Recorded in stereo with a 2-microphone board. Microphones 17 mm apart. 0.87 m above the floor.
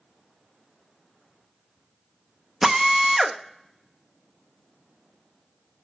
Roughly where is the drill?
Centre.